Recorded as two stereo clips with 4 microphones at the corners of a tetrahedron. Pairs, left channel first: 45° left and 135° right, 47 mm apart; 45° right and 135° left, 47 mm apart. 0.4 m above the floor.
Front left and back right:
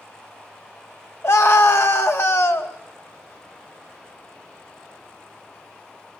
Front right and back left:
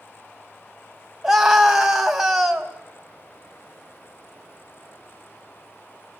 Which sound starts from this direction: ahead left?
A scream, at 1.2 s.